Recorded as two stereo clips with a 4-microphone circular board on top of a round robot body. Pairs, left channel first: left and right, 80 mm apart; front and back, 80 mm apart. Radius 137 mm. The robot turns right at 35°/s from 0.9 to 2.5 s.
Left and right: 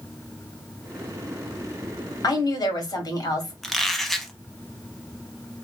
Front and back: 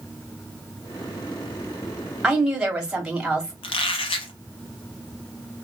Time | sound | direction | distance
2.2 | a woman speaking | 90° left | 1.8 m
3.6 | a squeak | 5° left | 0.6 m